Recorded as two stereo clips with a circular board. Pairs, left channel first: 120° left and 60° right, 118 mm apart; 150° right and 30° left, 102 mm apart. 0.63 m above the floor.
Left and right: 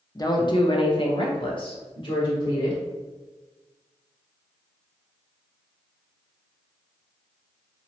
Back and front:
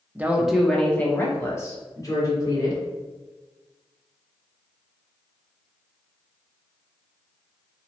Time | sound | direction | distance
0.1 | a woman speaking | 90° left | 0.6 m